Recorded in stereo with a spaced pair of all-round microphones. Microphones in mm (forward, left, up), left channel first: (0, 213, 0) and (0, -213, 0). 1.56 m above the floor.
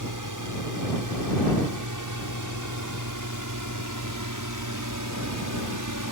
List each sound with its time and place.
0.0 s a drone: 45° right (ahead or behind)